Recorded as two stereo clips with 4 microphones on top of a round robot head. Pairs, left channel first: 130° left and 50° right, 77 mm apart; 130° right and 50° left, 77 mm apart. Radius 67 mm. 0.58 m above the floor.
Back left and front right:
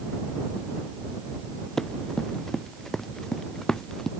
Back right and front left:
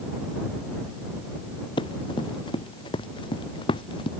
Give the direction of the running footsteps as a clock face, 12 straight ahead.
5 o'clock.